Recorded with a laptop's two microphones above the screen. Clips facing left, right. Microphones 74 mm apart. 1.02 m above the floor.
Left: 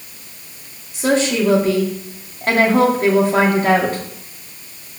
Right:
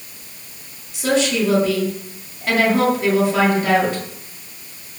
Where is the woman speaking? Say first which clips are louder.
Left 2 dB; 40° left (ahead or behind), 2.5 m.